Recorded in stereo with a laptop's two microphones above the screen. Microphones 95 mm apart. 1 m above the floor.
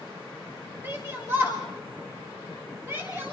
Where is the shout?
25° right (ahead or behind), 1.8 m.